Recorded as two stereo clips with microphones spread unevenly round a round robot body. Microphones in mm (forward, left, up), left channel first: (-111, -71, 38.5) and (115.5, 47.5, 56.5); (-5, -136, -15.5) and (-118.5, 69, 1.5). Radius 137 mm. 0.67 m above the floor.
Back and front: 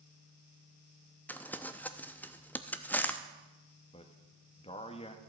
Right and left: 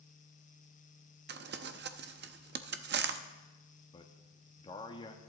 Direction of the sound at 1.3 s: 130° left.